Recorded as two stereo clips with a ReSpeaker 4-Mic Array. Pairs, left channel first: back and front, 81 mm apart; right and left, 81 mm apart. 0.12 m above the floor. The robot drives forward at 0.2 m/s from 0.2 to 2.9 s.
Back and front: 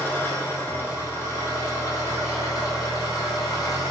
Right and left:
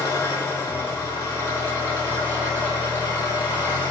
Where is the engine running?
125° right, 0.9 m; by 3.9 s 150° right, 1.2 m.